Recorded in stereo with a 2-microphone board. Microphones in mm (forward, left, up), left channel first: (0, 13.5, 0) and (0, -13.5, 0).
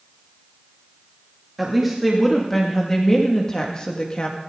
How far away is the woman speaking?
About 2.5 m.